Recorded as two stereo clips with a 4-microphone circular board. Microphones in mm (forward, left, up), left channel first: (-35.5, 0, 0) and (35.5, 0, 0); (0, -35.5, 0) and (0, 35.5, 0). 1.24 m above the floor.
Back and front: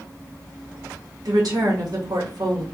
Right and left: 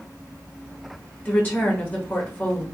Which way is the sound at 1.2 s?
25° right.